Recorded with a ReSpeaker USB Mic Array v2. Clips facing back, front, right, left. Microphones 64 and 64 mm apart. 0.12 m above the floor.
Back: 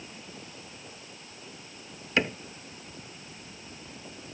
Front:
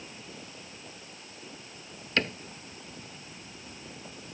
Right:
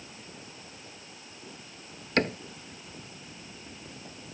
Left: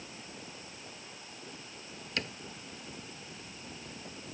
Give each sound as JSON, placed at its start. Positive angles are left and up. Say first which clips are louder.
{"t": 2.2, "sound": "a cupboard door", "louder": "back 2 dB, right 12 dB", "azimuth_deg": -105}